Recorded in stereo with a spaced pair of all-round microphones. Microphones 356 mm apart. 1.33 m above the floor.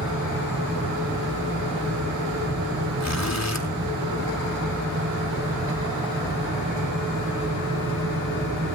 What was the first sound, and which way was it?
A fan, 40° right (ahead or behind).